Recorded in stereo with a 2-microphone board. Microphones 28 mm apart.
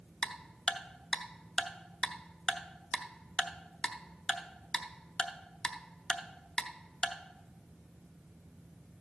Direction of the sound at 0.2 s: 25° left (ahead or behind).